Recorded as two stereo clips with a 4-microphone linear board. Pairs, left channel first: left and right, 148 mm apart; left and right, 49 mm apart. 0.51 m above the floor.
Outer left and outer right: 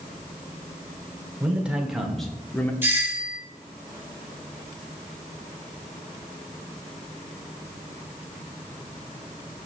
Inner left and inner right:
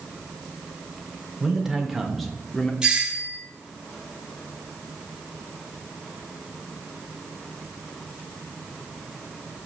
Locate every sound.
1.4 s a man speaking: 10° right (ahead or behind), 1.5 m; by 2.7 s 15° left (ahead or behind), 0.9 m
2.8 s a doorbell: 15° right (ahead or behind), 1.3 m